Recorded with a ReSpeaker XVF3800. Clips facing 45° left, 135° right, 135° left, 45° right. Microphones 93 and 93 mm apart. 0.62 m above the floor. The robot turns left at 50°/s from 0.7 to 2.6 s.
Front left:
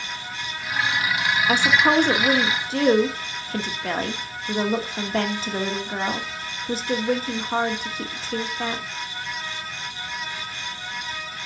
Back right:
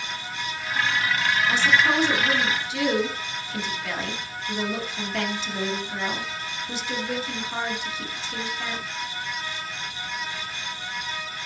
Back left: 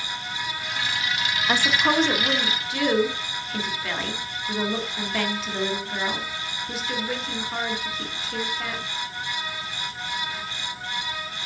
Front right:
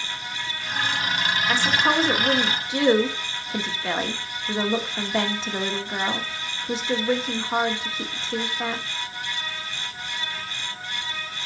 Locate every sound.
1.5 s a woman speaking: 65° left, 1.2 m; by 8.8 s 10° left, 1.2 m